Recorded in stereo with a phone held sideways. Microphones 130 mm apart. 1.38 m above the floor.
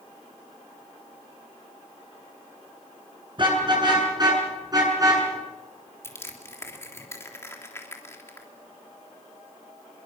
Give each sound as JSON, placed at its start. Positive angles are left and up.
{"t": 3.4, "sound": "a car horn", "side_deg": -40, "distance_m": 8.5}
{"t": 6.0, "sound": "crushing", "side_deg": 20, "distance_m": 3.5}